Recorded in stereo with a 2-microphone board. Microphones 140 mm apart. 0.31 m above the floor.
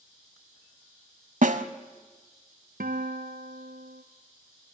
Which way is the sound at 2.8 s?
85° right.